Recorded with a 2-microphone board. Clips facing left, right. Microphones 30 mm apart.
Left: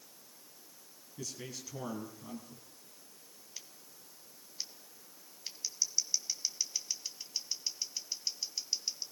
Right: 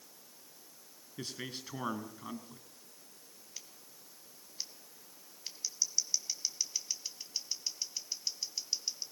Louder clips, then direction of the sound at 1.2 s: Right 2 dB; 50° right (ahead or behind).